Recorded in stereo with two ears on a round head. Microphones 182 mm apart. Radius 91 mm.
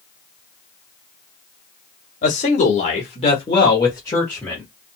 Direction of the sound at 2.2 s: 35° left (ahead or behind).